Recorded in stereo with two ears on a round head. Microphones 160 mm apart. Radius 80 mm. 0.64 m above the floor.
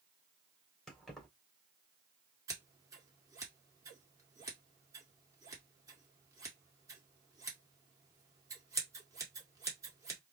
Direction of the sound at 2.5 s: 20° right (ahead or behind).